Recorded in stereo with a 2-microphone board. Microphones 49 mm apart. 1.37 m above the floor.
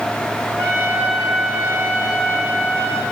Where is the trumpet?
65° right (ahead or behind), 8.5 m.